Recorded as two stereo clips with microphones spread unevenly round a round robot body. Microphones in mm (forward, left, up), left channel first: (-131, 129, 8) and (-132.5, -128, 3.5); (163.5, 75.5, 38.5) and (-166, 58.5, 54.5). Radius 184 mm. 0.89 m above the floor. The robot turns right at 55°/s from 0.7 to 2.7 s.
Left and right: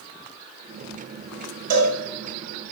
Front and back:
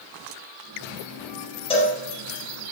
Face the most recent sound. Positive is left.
turn(degrees=-20)